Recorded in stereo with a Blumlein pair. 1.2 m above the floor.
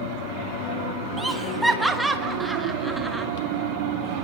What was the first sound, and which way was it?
Laughter, straight ahead.